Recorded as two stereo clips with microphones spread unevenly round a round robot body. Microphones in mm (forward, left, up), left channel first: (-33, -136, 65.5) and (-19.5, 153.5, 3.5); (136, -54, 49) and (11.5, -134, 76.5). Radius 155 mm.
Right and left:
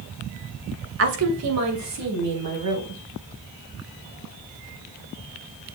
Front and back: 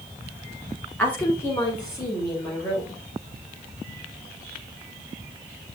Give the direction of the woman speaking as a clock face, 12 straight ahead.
8 o'clock.